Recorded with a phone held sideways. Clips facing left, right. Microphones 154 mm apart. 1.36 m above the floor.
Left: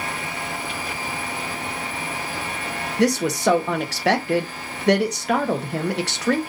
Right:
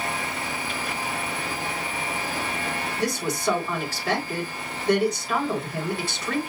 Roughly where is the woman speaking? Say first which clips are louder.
Left 8 dB; left.